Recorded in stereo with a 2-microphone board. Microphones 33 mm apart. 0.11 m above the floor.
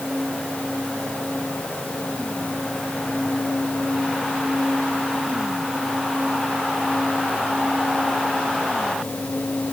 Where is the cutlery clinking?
I don't hear cutlery clinking.